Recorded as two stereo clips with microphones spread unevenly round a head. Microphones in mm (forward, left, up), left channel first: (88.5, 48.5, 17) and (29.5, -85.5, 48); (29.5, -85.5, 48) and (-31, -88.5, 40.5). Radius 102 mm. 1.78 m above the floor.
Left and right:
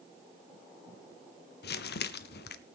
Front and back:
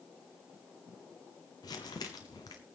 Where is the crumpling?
55° left, 0.8 m.